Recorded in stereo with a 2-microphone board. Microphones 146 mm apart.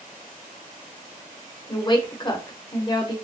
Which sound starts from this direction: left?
A woman speaking, at 1.7 s.